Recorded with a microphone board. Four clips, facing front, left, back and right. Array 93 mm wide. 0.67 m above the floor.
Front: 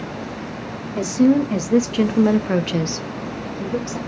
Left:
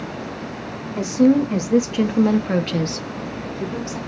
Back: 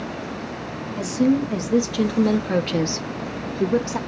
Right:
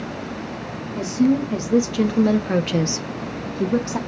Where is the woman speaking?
35° left, 1.2 m; by 4.0 s 130° right, 1.0 m.